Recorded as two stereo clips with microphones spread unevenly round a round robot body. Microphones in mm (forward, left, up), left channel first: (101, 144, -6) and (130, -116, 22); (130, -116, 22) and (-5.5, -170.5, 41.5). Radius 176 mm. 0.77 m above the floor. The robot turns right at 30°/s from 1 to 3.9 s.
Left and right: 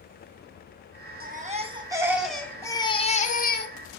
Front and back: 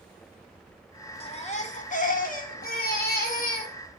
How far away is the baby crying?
About 1.9 m.